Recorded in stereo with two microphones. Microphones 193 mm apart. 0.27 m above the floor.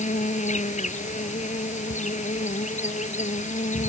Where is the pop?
No pop in this recording.